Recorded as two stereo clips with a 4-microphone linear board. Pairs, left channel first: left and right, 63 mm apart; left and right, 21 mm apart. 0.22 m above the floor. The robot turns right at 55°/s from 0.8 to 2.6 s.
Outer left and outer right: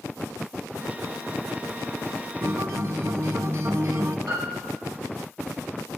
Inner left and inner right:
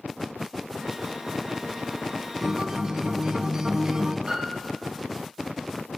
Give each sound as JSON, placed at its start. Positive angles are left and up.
{"t": 2.4, "sound": "a guitar", "side_deg": -40, "distance_m": 1.6}
{"t": 4.3, "sound": "a piano", "side_deg": -70, "distance_m": 7.0}